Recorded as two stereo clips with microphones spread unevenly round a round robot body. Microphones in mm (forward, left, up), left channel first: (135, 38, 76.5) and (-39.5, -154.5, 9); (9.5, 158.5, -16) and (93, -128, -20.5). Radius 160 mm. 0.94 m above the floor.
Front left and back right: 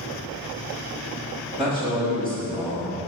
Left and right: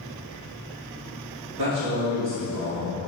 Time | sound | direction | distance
1.6 | a man speaking | 70° right | 2 m